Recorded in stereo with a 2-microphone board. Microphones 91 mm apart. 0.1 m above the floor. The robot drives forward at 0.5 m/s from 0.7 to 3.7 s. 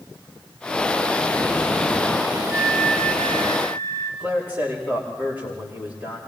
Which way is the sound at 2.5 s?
40° right (ahead or behind).